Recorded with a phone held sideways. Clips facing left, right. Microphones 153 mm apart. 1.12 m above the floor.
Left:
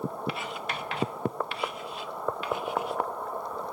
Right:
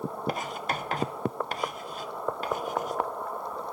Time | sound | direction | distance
0.3 | writing | 40° right (ahead or behind) | 0.6 m